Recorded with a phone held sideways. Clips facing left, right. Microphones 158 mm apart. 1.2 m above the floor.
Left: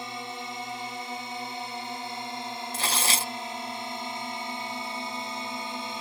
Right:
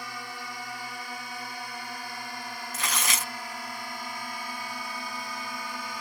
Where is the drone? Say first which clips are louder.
Left 3 dB; 25° left (ahead or behind).